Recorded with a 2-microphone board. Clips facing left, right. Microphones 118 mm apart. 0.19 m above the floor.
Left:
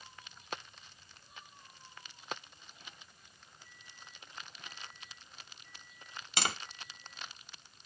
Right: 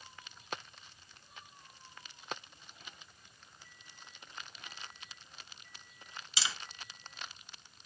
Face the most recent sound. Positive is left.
turn(degrees=55)  # may be behind; listen again after turning